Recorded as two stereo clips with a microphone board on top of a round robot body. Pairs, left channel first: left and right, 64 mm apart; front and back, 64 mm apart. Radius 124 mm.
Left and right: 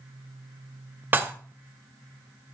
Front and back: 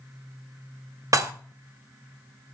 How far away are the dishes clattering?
About 1.2 m.